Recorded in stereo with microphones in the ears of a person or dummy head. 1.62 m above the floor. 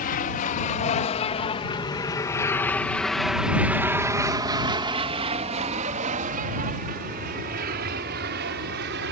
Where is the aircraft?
45° left (ahead or behind); by 9.1 s 60° right (ahead or behind).